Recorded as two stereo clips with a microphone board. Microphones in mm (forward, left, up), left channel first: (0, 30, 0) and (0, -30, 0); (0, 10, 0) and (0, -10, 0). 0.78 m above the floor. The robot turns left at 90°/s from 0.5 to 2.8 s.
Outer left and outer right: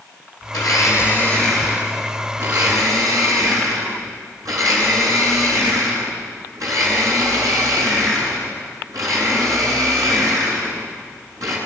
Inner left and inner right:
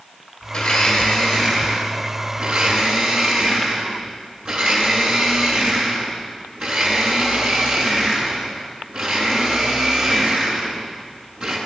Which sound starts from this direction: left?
A blender, at 0.5 s.